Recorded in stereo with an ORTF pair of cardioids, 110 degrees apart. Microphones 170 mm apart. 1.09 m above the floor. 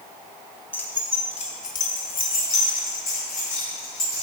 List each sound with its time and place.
0.7 s keys jangling: 10° left, 1.0 m; by 4.2 s 75° left, 3.5 m